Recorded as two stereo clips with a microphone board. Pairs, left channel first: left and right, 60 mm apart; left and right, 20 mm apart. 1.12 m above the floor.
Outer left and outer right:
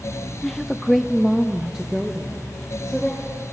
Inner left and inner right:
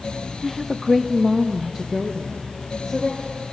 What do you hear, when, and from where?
0.4 s a woman speaking: 5° left (ahead or behind), 0.6 m; by 3.4 s 10° right (ahead or behind), 2.5 m